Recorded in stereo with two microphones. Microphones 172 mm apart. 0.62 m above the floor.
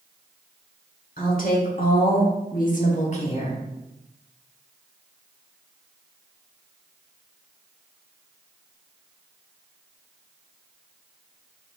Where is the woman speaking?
55° left (ahead or behind), 1.8 m; by 3.6 s 30° left (ahead or behind), 1.3 m.